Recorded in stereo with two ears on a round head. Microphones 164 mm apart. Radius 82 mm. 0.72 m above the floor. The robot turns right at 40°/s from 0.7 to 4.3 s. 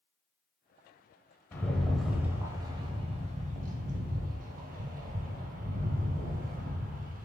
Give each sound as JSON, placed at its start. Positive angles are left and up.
{"t": 1.5, "sound": "a rattle", "azimuth_deg": 165, "distance_m": 0.6}